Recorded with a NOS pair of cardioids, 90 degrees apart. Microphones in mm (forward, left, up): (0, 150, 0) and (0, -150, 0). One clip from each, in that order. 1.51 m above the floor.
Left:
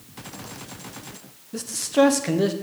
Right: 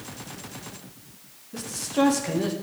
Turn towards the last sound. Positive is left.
turn(degrees=25)